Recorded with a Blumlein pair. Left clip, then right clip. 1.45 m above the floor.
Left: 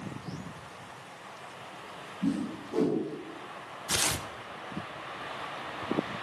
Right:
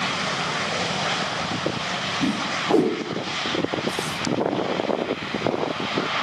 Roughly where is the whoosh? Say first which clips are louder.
Right 11 dB; ahead right.